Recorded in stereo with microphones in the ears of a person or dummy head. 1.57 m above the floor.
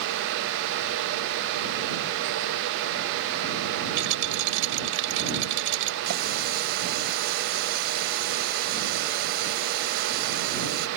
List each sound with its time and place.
4.0 s a rattle: 80° right
6.1 s a running tap: 60° right (ahead or behind)